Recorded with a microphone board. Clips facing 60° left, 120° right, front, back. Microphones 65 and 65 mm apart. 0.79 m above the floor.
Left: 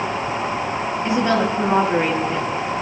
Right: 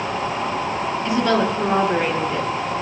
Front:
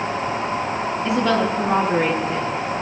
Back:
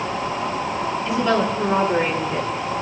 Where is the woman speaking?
5° right, 7.5 m; by 2.5 s 10° right, 8.5 m.